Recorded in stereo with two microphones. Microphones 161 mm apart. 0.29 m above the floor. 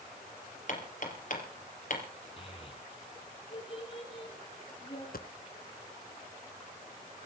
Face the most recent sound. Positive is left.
turn(degrees=70)  # may be behind; listen again after turning